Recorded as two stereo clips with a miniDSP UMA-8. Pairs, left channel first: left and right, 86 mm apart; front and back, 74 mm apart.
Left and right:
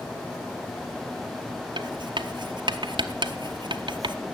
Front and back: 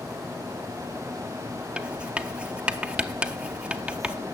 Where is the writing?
105° right, 0.7 m.